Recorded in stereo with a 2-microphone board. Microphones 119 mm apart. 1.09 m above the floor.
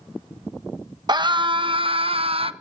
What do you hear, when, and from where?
1.1 s a scream: 35° right (ahead or behind), 1.4 m; by 2.5 s 50° right (ahead or behind), 1.1 m